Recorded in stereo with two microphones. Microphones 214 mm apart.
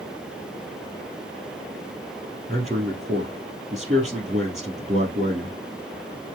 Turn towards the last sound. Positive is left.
turn(degrees=-35)  # may be behind; listen again after turning